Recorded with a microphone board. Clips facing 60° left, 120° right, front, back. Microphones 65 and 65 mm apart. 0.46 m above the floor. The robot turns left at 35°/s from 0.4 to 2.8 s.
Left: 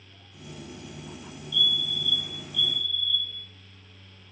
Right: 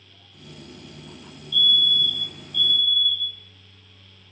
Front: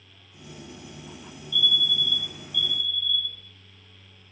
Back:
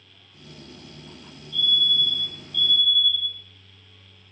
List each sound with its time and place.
1.5 s a fire alarm: 130° left, 3 m; by 3.4 s 85° left, 3 m